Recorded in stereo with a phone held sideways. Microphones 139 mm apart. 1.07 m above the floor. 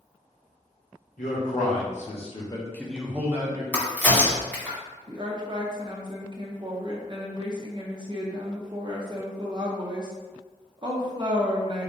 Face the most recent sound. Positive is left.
turn(degrees=-35)  # may be behind; listen again after turning